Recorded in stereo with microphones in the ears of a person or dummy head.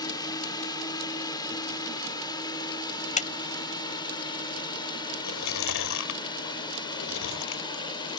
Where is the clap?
35° left (ahead or behind).